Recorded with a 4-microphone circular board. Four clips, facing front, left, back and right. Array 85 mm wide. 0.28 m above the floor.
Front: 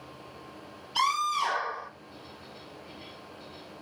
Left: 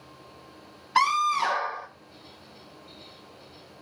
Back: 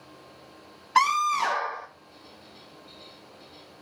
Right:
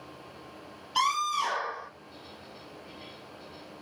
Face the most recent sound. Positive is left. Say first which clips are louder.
# left 5 dB, back 5 dB
turn(degrees=145)